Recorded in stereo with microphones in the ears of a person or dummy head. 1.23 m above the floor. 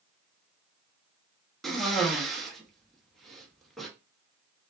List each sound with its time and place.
1.6 s a cough: centre (ahead or behind), 0.6 m